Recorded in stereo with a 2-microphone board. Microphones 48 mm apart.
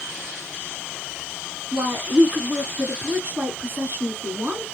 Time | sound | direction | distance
1.7 | a woman speaking | 45° right (ahead or behind) | 2 m